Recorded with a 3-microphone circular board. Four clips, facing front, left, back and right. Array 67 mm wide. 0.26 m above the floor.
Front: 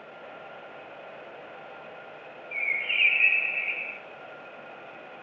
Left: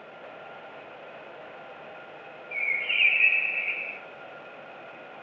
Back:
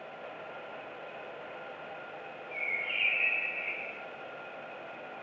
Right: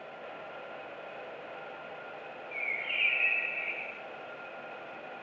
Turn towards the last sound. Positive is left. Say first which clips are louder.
# left 7 dB, front 6 dB
turn(degrees=50)